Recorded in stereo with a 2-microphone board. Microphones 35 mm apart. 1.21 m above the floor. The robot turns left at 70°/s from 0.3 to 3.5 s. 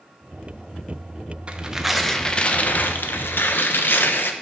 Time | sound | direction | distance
1.5 | tearing paper | 145° right | 0.8 m